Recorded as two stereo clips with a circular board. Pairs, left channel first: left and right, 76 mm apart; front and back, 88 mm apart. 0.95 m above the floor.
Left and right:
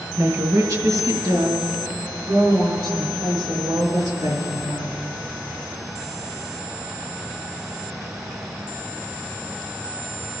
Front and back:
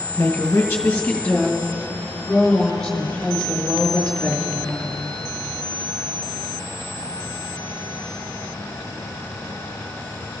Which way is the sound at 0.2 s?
60° right.